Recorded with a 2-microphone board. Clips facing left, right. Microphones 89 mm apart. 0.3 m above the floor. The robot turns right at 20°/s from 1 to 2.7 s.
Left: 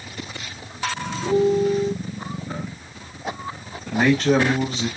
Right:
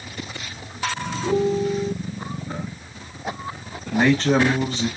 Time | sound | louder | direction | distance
1.2 | a piano | left 3 dB | 40° left (ahead or behind) | 1.8 m
3.9 | a man speaking | even | 5° left (ahead or behind) | 1.7 m